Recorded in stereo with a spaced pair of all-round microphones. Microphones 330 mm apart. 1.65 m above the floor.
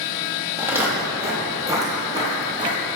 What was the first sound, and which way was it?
Footsteps, 5° right (ahead or behind).